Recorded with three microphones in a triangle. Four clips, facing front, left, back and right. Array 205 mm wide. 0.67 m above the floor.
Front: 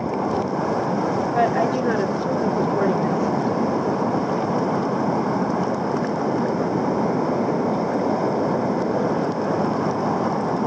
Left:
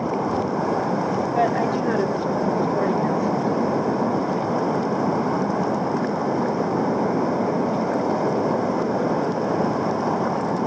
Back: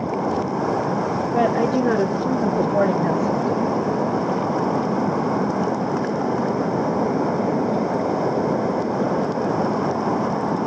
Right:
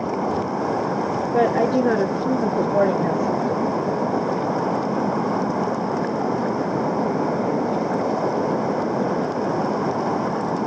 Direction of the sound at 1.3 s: 110° right.